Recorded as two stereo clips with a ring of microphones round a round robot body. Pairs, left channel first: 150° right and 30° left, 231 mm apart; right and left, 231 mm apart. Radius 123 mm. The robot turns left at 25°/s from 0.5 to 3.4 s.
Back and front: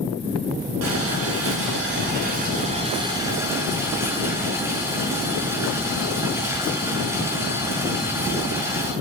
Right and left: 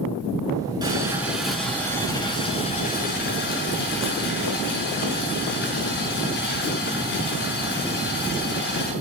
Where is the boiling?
15° left, 8 m; by 8.9 s 50° right, 8 m.